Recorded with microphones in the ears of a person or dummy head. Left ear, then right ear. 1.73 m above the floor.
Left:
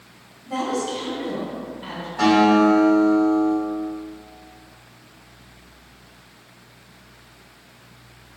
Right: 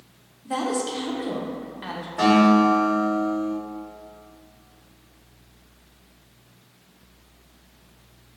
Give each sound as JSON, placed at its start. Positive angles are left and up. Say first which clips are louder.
{"t": 0.5, "sound": "a woman speaking", "louder": "left 1 dB", "side_deg": -70, "distance_m": 0.6}
{"t": 2.2, "sound": "a guitar", "louder": "left 2 dB", "side_deg": -45, "distance_m": 1.5}